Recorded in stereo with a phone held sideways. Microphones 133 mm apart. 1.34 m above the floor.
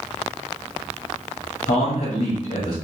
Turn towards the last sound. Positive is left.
turn(degrees=70)  # may be behind; listen again after turning